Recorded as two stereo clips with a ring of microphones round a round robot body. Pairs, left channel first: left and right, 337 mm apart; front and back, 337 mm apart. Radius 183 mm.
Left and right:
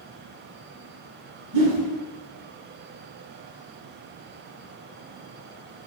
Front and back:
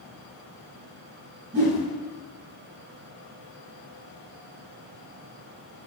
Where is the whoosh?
125° right, 1.2 m.